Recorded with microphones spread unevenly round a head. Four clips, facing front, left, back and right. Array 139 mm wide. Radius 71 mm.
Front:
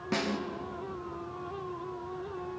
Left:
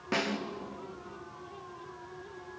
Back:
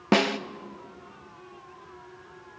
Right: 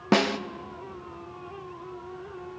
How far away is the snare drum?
About 0.9 m.